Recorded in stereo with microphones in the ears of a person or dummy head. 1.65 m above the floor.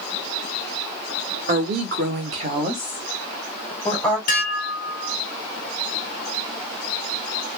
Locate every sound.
1.5 s a woman speaking: 50° right (ahead or behind), 1.4 m; by 4.2 s 15° left (ahead or behind), 2.5 m
4.3 s dishes clattering: 45° left (ahead or behind), 0.8 m